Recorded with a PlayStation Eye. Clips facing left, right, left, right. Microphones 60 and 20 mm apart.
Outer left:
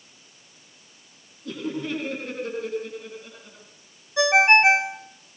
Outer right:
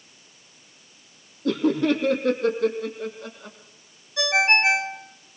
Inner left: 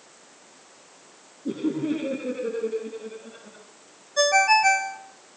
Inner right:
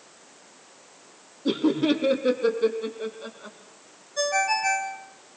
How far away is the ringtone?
About 1.1 m.